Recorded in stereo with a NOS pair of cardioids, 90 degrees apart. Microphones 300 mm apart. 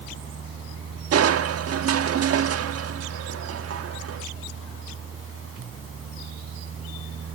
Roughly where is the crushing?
Ahead right.